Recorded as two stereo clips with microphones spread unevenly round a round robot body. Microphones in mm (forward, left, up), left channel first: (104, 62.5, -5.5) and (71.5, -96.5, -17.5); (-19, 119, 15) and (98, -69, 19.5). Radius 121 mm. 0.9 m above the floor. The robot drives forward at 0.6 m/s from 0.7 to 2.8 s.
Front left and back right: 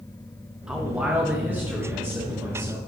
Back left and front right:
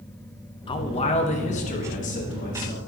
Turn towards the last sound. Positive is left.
turn(degrees=180)